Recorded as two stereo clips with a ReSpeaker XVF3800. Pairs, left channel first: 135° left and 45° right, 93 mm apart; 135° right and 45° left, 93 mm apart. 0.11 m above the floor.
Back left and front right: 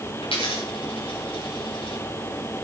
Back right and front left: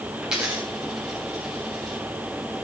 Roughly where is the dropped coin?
Behind left.